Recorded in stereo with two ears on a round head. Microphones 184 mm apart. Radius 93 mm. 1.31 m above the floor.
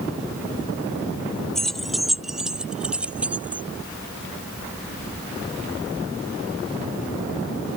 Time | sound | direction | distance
1.6 | keys jangling | centre (ahead or behind) | ?